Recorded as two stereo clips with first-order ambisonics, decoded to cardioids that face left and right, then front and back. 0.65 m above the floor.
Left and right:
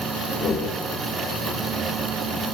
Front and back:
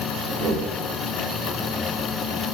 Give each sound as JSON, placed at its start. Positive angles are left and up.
{"t": 0.3, "sound": "a whoosh", "azimuth_deg": 145, "distance_m": 2.5}